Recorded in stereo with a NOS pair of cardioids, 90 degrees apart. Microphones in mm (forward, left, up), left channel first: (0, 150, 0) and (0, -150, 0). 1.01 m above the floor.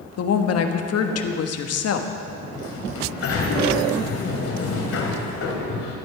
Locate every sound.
0.2 s a woman speaking: 60° left, 1.3 m
2.3 s a sliding door: 55° left, 2.5 m